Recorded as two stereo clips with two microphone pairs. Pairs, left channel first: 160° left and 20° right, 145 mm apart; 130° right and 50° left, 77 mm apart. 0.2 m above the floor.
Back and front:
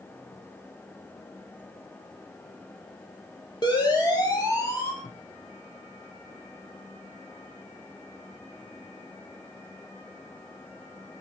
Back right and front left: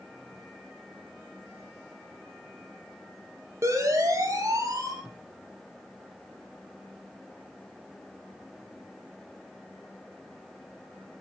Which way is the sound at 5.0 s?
135° left.